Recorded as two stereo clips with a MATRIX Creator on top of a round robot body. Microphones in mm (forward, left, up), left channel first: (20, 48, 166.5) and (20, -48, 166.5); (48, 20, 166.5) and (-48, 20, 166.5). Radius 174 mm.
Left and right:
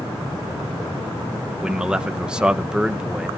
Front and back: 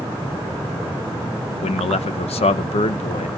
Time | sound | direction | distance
1.6 | a man speaking | 10° right | 0.6 m